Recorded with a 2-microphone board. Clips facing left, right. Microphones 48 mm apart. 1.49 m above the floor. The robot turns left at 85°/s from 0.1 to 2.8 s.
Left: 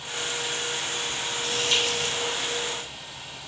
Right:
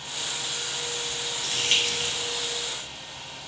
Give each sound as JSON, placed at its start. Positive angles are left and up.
{"t": 1.4, "sound": "crumpling", "side_deg": -65, "distance_m": 3.0}